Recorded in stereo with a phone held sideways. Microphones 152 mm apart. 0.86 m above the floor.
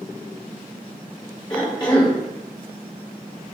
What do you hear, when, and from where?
1.5 s a cough: 30° left (ahead or behind), 0.7 m